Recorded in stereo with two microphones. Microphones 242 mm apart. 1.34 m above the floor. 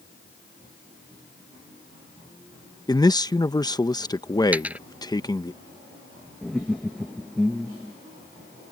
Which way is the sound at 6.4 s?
Centre (ahead or behind).